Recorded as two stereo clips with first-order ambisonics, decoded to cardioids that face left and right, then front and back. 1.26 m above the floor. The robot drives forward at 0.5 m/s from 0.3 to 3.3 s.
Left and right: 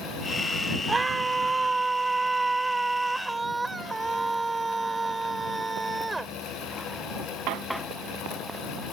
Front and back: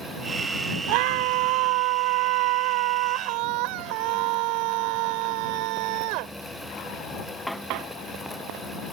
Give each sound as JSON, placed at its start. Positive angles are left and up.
{"t": 0.9, "sound": "a scream", "azimuth_deg": -170}